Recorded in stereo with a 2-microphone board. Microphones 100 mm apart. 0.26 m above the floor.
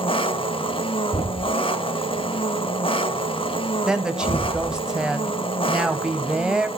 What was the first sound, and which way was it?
An engine running, 60° left (ahead or behind).